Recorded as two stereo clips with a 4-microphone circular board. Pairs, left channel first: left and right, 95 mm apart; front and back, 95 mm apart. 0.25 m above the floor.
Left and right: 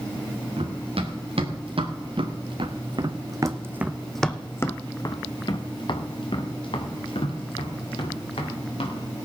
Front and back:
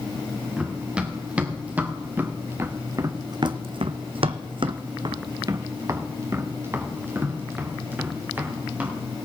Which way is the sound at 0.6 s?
100° right.